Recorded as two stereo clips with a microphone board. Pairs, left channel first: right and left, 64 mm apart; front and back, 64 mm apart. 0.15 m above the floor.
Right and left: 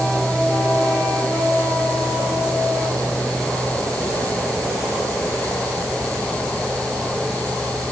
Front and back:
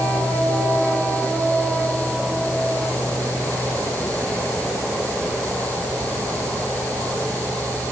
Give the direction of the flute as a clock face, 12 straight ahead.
No flute in this recording.